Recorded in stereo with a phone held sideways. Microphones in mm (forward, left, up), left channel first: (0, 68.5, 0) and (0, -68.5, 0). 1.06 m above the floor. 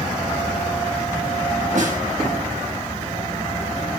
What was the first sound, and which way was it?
A snare drum, 65° right (ahead or behind).